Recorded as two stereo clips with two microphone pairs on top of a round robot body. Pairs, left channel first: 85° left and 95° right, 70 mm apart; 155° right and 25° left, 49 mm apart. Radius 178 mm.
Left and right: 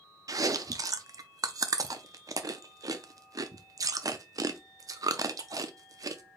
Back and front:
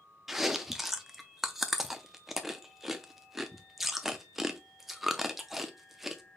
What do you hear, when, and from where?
0.3 s chewing: 60° right, 0.5 m